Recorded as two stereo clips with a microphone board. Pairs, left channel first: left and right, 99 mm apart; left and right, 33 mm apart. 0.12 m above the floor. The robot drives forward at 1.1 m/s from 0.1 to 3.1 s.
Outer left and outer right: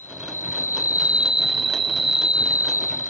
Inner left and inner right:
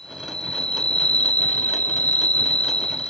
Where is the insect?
20° left (ahead or behind); by 3.1 s 25° left (ahead or behind).